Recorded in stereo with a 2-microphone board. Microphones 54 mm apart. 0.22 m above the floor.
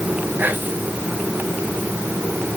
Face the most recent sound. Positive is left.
turn(degrees=-35)  # may be behind; listen again after turning